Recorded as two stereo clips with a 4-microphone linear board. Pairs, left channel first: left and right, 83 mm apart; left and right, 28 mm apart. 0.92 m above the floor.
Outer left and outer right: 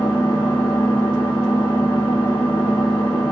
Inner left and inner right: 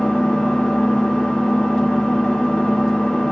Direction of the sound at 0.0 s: 70° left (ahead or behind).